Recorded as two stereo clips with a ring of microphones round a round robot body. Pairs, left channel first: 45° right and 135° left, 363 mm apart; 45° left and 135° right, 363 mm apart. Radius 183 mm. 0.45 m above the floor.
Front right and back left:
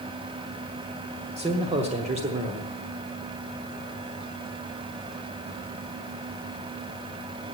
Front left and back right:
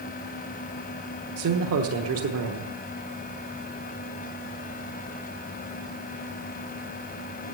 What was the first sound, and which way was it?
A man speaking, 160° right.